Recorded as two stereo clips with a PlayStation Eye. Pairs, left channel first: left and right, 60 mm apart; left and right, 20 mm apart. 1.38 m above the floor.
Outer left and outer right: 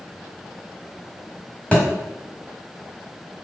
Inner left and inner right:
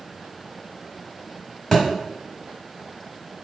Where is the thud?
20° left (ahead or behind), 1.5 m.